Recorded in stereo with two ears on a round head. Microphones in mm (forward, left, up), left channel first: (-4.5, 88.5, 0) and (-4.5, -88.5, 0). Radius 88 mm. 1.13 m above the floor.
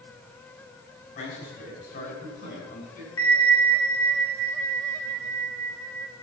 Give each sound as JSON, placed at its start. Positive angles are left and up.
{"t": 1.1, "sound": "a man speaking", "side_deg": 50, "distance_m": 8.5}
{"t": 3.2, "sound": "a bell", "side_deg": 80, "distance_m": 3.0}